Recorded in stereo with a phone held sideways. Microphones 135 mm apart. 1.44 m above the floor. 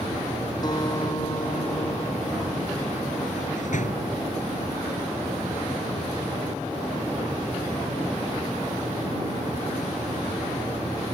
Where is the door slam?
65° left (ahead or behind).